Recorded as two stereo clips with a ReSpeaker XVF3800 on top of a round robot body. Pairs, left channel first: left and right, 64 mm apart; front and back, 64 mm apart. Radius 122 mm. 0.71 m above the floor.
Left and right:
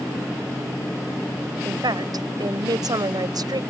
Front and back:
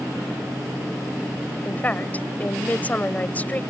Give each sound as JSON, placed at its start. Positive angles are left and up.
{"t": 1.6, "sound": "a woman speaking", "azimuth_deg": -65}